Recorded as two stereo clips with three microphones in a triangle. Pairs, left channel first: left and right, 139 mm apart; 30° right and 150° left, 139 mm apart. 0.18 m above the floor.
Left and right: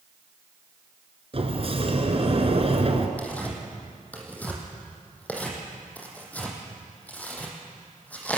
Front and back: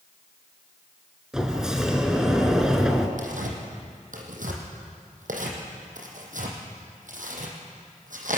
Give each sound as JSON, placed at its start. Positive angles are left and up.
{"t": 1.3, "sound": "a sliding door", "azimuth_deg": -125, "distance_m": 2.0}
{"t": 3.2, "sound": "tearing paper", "azimuth_deg": 170, "distance_m": 3.5}